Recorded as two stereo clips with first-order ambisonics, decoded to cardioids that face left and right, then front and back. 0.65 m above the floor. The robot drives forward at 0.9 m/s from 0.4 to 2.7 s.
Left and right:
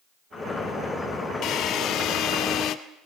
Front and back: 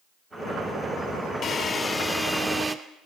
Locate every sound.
1.4 s a drill: 50° left, 1.7 m; by 2.8 s 110° left, 1.5 m